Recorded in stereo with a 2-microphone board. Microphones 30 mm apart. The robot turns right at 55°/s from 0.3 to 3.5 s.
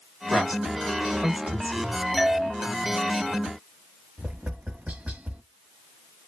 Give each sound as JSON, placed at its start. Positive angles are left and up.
{"t": 0.3, "sound": "a man speaking", "side_deg": -5, "distance_m": 2.5}
{"t": 2.2, "sound": "a doorbell", "side_deg": -5, "distance_m": 1.5}
{"t": 4.2, "sound": "tapping", "side_deg": -55, "distance_m": 1.0}